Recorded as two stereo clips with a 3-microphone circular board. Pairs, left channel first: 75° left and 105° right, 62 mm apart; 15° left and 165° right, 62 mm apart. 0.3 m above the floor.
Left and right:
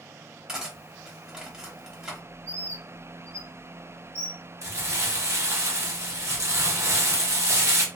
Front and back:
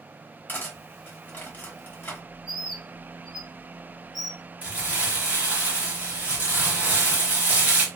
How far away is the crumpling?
About 1.0 m.